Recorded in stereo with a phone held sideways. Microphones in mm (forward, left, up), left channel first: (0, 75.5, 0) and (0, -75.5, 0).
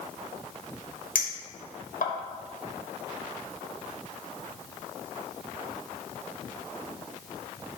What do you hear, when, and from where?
1.1 s a clink: 80° left, 1.4 m